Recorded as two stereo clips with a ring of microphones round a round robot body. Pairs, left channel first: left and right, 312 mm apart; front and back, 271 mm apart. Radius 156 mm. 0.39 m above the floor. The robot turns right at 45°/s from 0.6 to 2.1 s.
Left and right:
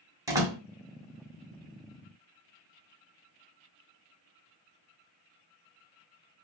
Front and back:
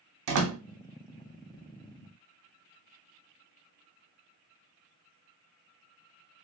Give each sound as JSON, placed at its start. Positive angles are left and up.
{"t": 0.3, "sound": "a door slam", "azimuth_deg": -170, "distance_m": 1.8}